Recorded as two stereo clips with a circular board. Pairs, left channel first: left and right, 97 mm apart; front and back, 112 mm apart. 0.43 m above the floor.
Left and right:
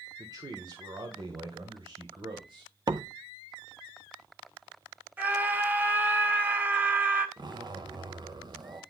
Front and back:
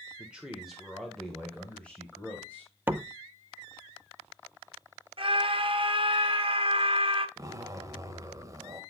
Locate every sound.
0.2 s a man speaking: 105° right, 1.3 m; by 2.7 s 75° right, 2.5 m
2.9 s a door slam: 115° right, 0.6 m
5.2 s a scream: 160° right, 1.8 m
7.4 s a zipper: 120° right, 1.2 m